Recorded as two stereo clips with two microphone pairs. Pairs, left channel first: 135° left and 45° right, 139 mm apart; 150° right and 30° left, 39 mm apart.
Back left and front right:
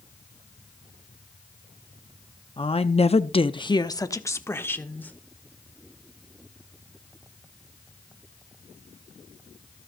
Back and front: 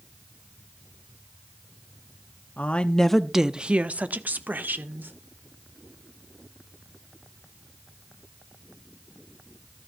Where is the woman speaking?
175° left, 0.8 m; by 5.1 s 55° left, 1.9 m.